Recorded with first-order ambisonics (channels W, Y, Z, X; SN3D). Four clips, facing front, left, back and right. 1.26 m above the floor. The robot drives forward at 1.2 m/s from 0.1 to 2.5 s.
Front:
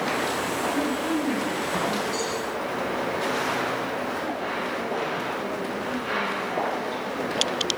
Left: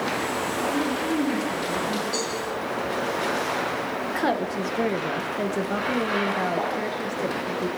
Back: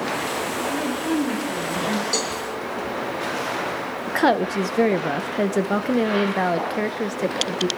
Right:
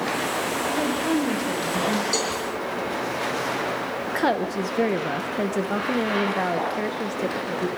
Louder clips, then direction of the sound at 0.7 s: Right 3 dB, back 2 dB; 85° right.